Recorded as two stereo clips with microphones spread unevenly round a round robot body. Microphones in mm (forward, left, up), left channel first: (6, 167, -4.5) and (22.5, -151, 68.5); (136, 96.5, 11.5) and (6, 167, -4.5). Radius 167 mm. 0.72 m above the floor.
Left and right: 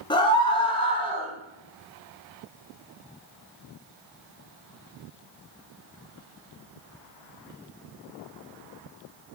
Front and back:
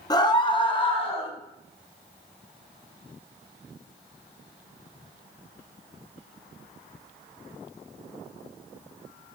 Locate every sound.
0.1 s a scream: 35° left, 1.2 m; by 1.3 s 25° left, 2 m